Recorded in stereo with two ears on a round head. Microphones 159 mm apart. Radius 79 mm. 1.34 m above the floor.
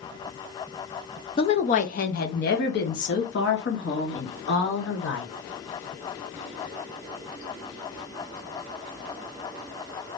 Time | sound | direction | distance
1.4 | a woman speaking | 30° left (ahead or behind) | 0.6 m